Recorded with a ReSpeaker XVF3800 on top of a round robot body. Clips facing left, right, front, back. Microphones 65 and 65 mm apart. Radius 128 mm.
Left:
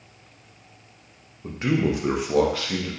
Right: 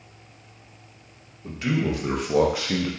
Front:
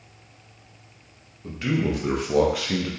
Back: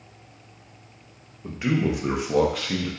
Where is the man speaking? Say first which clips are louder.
Left 2 dB, back 1 dB; 120° left, 0.9 m; by 2.9 s 70° right, 0.8 m.